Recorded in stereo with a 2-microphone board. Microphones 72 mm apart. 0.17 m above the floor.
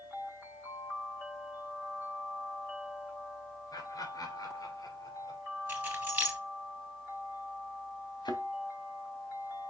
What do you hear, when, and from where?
3.7 s laughter: 60° left (ahead or behind), 2 m; by 5.4 s 55° left (ahead or behind), 3.5 m
5.7 s keys jangling: 25° right (ahead or behind), 2.5 m
8.2 s a thud: 85° left, 2.0 m